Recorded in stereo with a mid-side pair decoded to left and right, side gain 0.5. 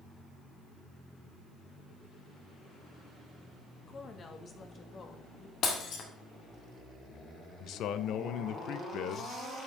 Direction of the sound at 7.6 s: 65° left.